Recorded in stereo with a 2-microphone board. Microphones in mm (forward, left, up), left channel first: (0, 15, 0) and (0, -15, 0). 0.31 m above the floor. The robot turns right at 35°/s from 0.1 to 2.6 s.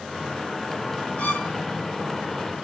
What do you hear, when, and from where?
1.2 s a violin: 55° left (ahead or behind), 1.3 m